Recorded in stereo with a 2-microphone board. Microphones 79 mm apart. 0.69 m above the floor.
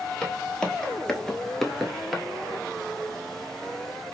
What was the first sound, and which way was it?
Footsteps, 10° left (ahead or behind).